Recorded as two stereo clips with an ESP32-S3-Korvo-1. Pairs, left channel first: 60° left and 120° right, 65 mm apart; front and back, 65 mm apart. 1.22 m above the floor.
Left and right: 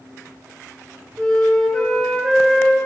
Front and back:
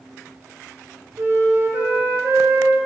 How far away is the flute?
About 2 m.